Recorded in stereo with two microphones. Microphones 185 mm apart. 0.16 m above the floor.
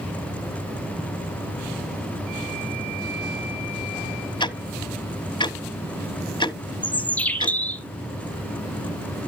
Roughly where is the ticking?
Left.